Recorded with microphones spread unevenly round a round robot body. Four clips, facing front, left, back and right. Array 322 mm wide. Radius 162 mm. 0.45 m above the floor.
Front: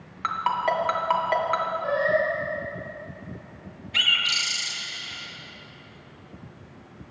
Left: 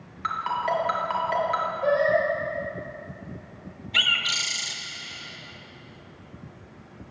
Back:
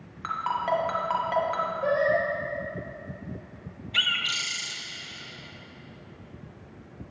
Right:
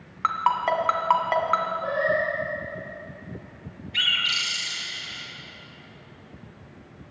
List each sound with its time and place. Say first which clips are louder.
0.2 s a ringtone: right 4 dB, front 3 dB; 50° right, 2 m
1.8 s singing: left 3 dB, back 1 dB; 170° left, 4 m
3.9 s a bird: left 1 dB, front 2 dB; 85° left, 1.6 m